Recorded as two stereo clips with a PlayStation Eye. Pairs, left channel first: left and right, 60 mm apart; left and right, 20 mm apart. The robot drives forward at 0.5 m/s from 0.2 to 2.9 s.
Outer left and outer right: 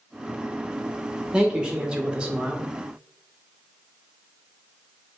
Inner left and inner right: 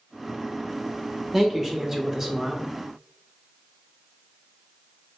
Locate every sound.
1.3 s a man speaking: 15° right (ahead or behind), 0.8 m